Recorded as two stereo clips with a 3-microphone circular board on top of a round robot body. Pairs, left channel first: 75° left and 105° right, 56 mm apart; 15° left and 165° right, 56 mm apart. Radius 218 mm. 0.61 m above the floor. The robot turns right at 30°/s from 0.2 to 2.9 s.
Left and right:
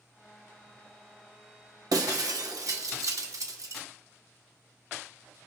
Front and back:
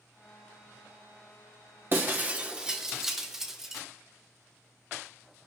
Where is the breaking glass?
115° right, 1.1 m; by 3.8 s 85° right, 1.1 m.